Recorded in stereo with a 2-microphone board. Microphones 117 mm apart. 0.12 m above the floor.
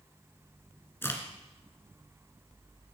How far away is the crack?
About 1.6 m.